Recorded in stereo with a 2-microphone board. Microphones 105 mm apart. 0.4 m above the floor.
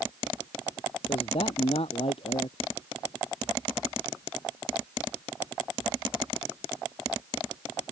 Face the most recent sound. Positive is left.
turn(degrees=65)  # may be behind; listen again after turning